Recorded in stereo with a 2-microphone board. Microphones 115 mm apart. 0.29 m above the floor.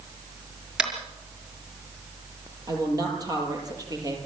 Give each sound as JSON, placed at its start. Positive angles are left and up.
{"t": 0.8, "sound": "tapping", "side_deg": -10, "distance_m": 5.0}
{"t": 2.7, "sound": "a woman speaking", "side_deg": -35, "distance_m": 6.5}